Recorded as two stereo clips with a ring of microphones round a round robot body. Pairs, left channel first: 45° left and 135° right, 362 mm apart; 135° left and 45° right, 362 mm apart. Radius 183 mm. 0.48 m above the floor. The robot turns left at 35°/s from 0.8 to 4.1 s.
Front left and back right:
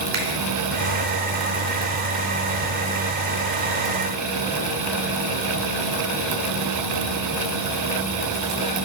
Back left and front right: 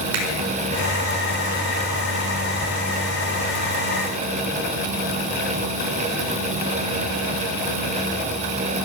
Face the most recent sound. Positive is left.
turn(degrees=175)